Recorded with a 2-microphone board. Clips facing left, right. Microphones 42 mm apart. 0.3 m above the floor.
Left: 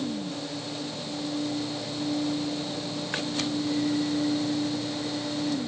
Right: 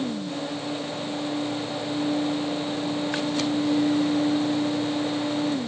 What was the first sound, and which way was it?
Only background noise.